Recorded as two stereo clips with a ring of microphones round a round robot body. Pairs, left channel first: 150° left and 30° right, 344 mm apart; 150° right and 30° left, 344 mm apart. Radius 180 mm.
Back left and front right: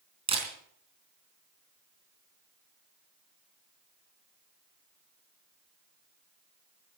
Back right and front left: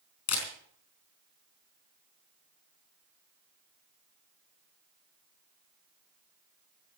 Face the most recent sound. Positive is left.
turn(degrees=-105)